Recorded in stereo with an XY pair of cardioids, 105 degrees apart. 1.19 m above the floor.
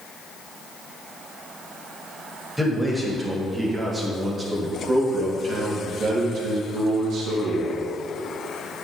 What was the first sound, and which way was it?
A man speaking, 10° right.